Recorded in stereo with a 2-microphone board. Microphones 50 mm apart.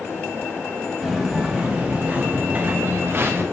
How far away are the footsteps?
About 2.5 m.